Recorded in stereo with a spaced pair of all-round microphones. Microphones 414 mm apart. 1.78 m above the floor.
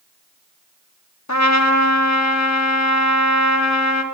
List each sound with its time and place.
1.3 s a trumpet: 40° left (ahead or behind), 1.0 m